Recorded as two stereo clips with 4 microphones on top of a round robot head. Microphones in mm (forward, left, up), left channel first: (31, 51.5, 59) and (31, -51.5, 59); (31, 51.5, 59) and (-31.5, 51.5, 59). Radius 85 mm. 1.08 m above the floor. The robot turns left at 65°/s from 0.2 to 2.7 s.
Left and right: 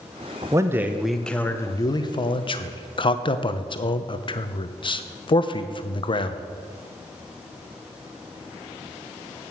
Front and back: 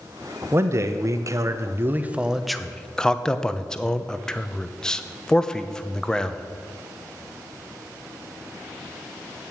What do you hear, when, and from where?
0.5 s a man speaking: 140° right, 0.9 m; by 6.5 s 75° left, 0.9 m